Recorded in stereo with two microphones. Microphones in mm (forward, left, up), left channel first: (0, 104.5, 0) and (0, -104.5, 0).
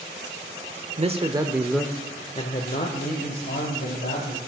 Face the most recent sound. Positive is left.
turn(degrees=60)  # may be behind; listen again after turning